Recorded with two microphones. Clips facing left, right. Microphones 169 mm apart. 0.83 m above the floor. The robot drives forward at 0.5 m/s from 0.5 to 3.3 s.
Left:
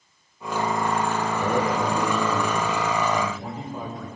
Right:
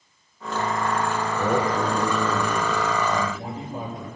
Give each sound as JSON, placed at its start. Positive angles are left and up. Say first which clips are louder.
{"t": 1.4, "sound": "a man speaking", "louder": "right 2 dB", "side_deg": -35, "distance_m": 3.0}